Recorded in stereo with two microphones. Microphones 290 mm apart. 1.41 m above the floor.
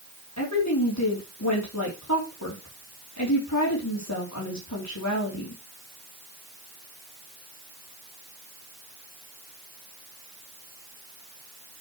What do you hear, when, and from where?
0.4 s a woman speaking: 70° left (ahead or behind), 3.5 m